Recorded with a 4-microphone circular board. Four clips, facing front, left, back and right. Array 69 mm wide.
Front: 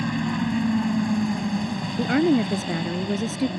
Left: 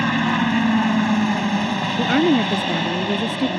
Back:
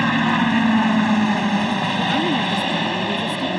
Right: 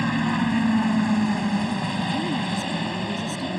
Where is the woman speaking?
75° left.